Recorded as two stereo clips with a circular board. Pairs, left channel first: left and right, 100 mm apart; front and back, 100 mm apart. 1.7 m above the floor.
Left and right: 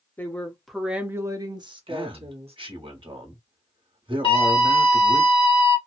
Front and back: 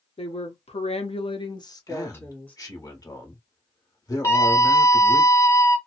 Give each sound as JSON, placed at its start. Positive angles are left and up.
{"t": 0.2, "sound": "a woman speaking", "azimuth_deg": 20, "distance_m": 0.9}
{"t": 1.9, "sound": "a man speaking", "azimuth_deg": -55, "distance_m": 1.1}
{"t": 4.2, "sound": "a scream", "azimuth_deg": 55, "distance_m": 1.4}